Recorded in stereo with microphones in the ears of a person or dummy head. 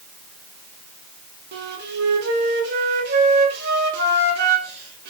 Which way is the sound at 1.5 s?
50° right (ahead or behind).